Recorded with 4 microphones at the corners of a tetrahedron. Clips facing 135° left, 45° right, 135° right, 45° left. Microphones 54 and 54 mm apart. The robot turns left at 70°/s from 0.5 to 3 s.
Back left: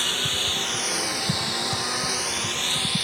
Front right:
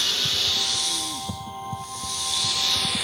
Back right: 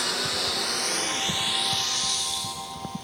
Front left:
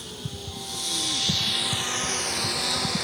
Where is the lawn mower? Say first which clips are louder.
Even, back right 9 dB; 150° right; by 3.0 s 40° left.